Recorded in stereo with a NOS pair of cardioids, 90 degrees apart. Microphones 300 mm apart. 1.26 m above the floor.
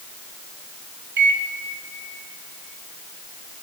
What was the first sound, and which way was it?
A microwave, 35° right.